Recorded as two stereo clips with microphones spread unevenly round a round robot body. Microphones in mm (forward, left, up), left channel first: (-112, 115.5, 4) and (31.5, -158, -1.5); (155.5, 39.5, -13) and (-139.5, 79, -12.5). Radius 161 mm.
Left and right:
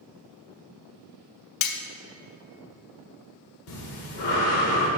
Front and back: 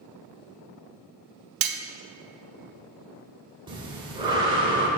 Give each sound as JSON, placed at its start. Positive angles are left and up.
{"t": 1.6, "sound": "cutlery clinking", "azimuth_deg": 155, "distance_m": 0.5}
{"t": 3.7, "sound": "breathing", "azimuth_deg": 95, "distance_m": 1.6}